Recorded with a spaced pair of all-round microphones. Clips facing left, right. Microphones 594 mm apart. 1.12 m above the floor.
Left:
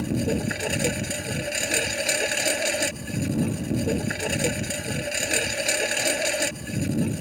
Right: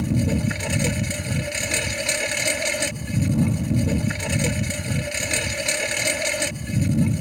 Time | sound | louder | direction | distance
0.0 | a lawn mower | right 2 dB | 30° right (ahead or behind) | ?